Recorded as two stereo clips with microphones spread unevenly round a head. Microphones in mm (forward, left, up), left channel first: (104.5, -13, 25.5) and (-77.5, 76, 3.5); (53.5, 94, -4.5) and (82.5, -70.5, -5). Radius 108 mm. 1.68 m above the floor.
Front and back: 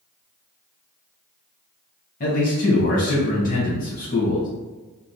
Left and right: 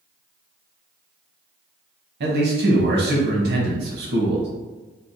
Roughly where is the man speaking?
Right.